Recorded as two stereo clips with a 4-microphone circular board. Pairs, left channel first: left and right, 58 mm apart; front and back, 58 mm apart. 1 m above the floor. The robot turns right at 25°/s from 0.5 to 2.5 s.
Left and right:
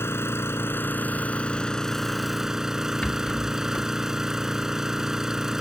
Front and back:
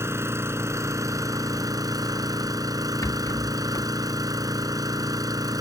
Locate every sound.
0.0 s an engine running: 135° left; by 5.6 s 175° right
3.0 s a rattle: 20° left